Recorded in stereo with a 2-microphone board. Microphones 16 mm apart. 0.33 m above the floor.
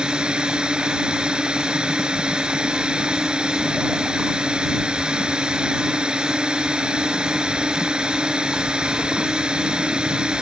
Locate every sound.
0.0 s a drone: 75° right (ahead or behind)